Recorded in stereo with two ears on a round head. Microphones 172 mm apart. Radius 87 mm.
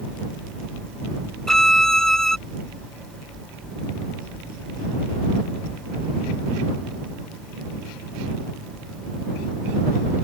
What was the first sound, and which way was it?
A violin, 5° left (ahead or behind).